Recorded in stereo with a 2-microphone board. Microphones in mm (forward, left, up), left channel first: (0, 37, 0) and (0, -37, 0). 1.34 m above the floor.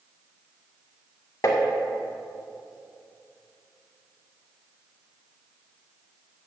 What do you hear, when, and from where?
1.4 s tapping: 45° left (ahead or behind), 1.7 m